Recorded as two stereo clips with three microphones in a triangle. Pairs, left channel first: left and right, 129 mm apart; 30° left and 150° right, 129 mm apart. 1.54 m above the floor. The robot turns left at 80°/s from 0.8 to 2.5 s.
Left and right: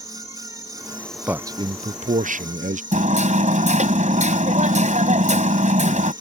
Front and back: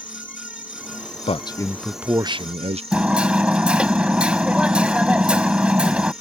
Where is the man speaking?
10° right; by 2.8 s 110° right.